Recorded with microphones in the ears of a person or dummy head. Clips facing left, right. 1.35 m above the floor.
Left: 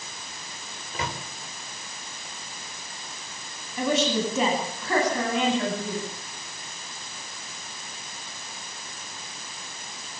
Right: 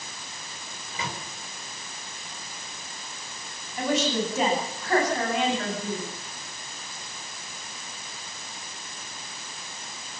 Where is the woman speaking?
80° left, 10 m.